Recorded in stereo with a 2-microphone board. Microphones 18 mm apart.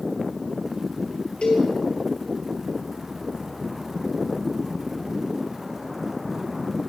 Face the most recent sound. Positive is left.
turn(degrees=75)  # may be behind; listen again after turning